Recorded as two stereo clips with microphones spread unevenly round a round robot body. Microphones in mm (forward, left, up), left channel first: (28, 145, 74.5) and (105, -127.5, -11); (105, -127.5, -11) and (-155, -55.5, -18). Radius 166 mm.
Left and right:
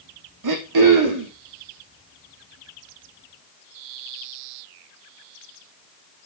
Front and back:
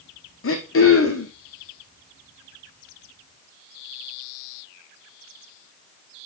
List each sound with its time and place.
0.4 s throat clearing: 60° right, 4.5 m